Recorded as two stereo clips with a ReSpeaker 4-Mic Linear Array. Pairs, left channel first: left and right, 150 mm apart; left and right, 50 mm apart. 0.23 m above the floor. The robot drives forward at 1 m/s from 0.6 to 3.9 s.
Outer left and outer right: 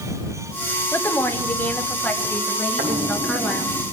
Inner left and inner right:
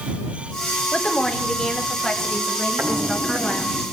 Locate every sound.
0.9 s a woman speaking: 15° left (ahead or behind), 1.4 m; by 3.8 s 5° left (ahead or behind), 3.5 m
2.8 s footsteps: 75° right (ahead or behind), 6 m; by 3.8 s 85° right, 4.5 m